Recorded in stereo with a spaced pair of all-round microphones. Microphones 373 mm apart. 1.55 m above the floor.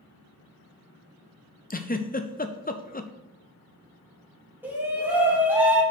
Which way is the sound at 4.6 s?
5° right (ahead or behind).